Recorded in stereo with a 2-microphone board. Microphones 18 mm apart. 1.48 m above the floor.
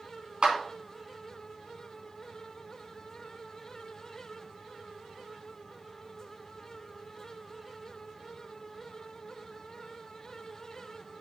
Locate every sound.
0.4 s a clap: 60° right (ahead or behind), 3 m